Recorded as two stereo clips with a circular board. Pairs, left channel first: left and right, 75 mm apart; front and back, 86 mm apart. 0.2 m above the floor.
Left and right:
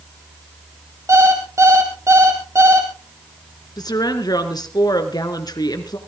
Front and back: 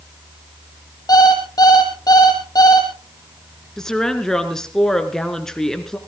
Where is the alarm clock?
40° right, 3 m.